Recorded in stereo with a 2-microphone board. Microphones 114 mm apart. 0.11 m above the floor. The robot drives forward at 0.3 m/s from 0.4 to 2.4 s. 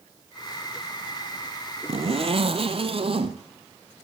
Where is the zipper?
60° right (ahead or behind), 1.1 m; by 3.4 s 55° right (ahead or behind), 1.1 m.